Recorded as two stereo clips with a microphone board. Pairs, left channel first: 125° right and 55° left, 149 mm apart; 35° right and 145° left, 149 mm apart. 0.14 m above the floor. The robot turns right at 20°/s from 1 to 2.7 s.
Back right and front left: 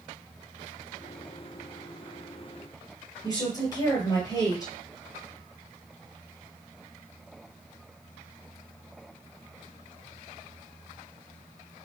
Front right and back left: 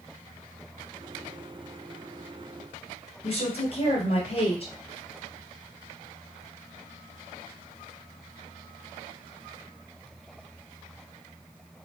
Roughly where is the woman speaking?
Right.